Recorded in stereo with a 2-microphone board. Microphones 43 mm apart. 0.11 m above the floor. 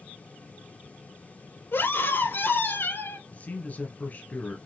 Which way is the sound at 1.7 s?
60° left (ahead or behind).